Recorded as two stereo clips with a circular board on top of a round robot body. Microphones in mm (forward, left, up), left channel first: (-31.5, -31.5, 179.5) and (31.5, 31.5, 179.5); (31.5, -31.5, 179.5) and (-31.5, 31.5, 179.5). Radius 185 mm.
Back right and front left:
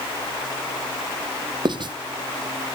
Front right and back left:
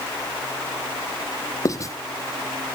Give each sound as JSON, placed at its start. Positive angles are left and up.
{"t": 1.6, "sound": "writing", "azimuth_deg": 10, "distance_m": 1.1}